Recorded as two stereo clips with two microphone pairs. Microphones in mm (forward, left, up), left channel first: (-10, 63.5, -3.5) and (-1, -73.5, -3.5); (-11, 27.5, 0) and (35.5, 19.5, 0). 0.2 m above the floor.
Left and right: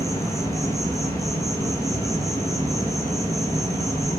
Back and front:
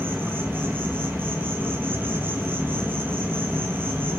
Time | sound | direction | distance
0.0 | an insect | 25° left | 0.8 m